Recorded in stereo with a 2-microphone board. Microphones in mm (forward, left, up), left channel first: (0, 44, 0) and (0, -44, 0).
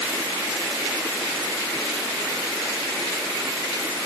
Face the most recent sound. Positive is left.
No sound to turn to.